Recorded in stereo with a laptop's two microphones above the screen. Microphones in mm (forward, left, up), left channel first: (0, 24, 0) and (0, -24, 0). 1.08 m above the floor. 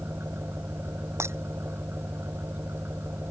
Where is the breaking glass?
65° right (ahead or behind).